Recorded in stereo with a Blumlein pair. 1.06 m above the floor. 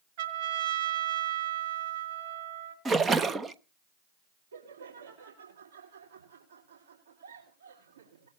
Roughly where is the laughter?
Ahead right.